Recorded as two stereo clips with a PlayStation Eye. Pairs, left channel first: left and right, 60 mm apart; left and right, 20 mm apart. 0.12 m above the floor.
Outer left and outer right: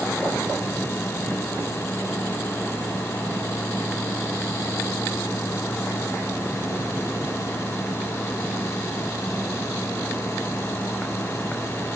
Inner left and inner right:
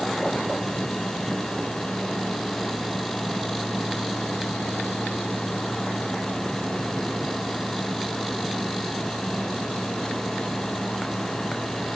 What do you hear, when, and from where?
Only background noise.